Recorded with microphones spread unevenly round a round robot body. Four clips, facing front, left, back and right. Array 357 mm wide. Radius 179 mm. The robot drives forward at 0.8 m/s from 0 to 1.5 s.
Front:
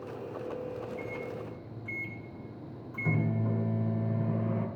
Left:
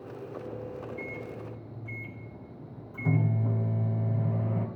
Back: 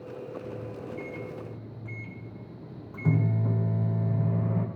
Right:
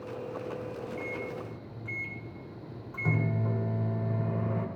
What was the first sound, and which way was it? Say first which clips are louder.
A microwave: right 1 dB, front 1 dB; 170° right.